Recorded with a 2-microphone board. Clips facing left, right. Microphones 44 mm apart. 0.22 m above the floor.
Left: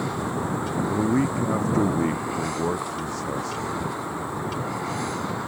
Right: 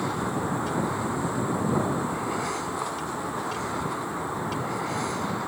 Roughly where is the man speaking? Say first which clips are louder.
Left 5 dB; left.